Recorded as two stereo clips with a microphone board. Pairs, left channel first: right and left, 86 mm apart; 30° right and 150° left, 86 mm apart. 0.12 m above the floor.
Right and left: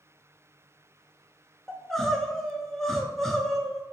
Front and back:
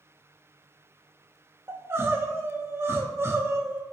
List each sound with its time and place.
1.7 s crying: 175° right, 0.6 m